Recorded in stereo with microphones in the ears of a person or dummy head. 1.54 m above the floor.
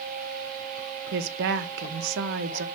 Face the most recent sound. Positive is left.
turn(degrees=-55)  # may be behind; listen again after turning